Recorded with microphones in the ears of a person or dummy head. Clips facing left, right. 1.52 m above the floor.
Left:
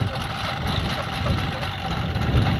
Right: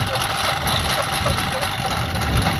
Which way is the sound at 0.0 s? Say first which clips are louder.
Right 5 dB; 65° right (ahead or behind).